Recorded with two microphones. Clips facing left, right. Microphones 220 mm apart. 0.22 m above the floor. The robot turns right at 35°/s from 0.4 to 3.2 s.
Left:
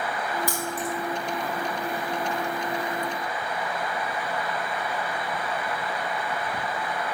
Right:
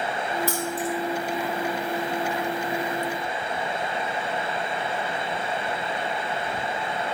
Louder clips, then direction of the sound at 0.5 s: Right 3 dB; 20° left (ahead or behind).